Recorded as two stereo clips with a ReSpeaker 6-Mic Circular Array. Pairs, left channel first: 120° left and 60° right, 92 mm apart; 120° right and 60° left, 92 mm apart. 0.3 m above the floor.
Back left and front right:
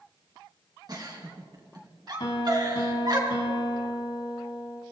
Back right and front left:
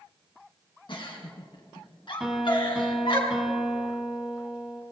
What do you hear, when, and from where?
0.9 s a giggle: 100° right, 2.5 m
2.2 s a piano: 145° left, 2 m